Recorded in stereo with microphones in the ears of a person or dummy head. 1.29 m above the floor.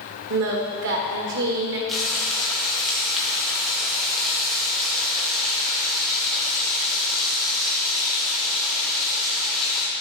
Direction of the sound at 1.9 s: Centre (ahead or behind).